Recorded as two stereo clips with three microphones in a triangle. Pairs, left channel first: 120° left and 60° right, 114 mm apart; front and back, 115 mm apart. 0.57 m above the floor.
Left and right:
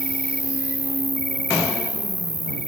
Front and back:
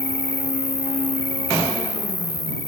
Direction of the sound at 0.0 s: 165° right.